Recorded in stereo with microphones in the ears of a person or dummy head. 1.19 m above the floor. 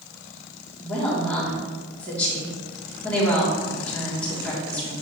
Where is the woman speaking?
10° left (ahead or behind), 3 m.